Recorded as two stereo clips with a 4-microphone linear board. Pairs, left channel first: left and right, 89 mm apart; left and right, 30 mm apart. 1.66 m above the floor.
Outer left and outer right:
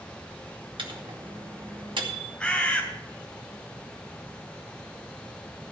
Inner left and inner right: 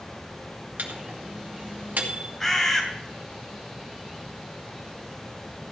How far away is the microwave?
About 2 m.